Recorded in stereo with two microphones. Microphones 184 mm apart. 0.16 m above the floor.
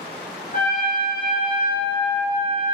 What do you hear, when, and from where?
0.5 s a trumpet: 50° left (ahead or behind), 1.3 m